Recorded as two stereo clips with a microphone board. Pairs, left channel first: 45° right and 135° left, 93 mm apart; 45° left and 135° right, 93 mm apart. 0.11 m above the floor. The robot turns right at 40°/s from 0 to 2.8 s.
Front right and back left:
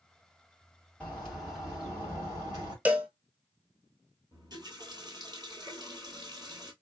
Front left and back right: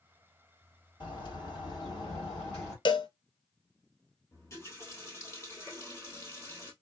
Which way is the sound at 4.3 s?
100° left.